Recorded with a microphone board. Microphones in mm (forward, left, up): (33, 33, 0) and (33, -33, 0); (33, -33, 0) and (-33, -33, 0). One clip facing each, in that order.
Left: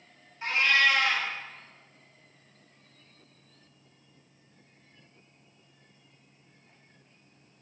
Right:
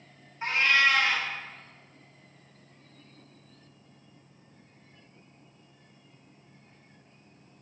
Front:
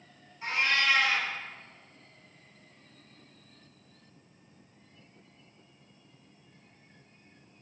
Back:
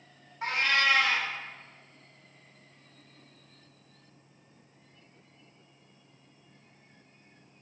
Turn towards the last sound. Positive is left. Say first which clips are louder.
# even, back 1 dB
turn(degrees=-155)